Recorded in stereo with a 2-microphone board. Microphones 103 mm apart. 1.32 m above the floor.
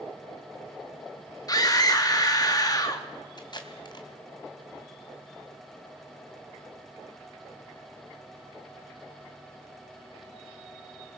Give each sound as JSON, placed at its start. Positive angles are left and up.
{"t": 1.5, "sound": "a scream", "side_deg": 35, "distance_m": 2.5}
{"t": 3.4, "sound": "tape being pulled", "side_deg": 45, "distance_m": 2.5}